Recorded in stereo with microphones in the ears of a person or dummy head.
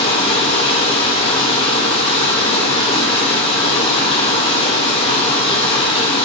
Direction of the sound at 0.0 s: 30° left (ahead or behind).